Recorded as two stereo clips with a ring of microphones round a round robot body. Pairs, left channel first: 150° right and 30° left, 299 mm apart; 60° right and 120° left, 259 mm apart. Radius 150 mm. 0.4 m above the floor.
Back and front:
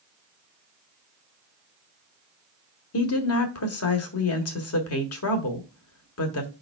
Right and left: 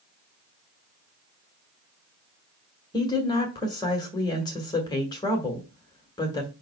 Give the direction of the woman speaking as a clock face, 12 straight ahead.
4 o'clock.